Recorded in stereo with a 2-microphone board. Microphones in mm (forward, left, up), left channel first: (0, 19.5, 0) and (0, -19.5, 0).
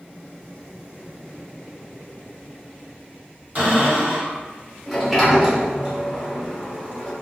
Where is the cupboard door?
45° right (ahead or behind), 1.6 m.